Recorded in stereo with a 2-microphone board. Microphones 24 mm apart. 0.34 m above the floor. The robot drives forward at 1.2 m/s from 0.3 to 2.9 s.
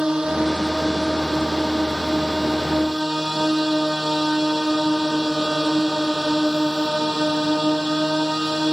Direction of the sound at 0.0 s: 30° right (ahead or behind).